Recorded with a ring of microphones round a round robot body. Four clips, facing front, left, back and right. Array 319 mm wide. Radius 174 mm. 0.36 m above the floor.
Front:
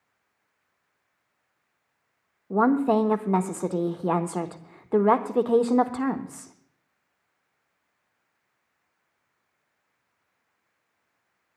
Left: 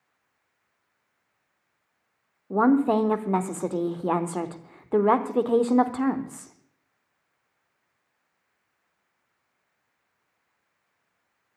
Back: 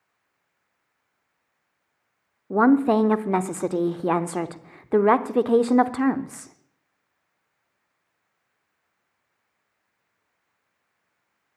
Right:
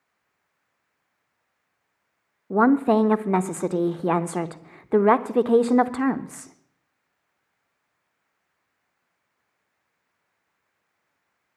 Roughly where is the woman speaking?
Behind right.